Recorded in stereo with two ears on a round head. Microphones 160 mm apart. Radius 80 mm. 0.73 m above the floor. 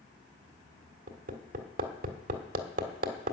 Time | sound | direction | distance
1.1 | hammering | 50° right (ahead or behind) | 1.6 m